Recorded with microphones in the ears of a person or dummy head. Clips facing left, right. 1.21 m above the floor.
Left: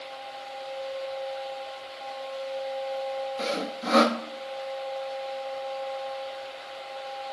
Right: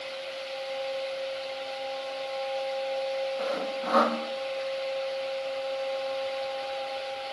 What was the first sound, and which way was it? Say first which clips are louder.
Sawing: right 1 dB; 35° left (ahead or behind).